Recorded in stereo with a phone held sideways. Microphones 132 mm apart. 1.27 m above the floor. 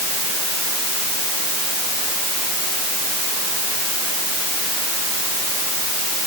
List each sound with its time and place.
Only background noise.